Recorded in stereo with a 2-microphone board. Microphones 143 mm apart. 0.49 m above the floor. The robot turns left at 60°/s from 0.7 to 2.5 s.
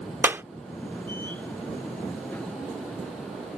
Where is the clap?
15° right (ahead or behind).